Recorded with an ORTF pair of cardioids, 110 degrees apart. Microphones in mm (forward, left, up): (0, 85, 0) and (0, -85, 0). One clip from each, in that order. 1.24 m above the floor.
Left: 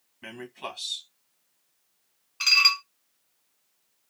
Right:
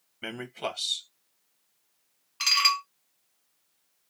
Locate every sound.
0.2 s a man speaking: 40° right, 1.3 m
2.4 s dishes clattering: 15° right, 0.8 m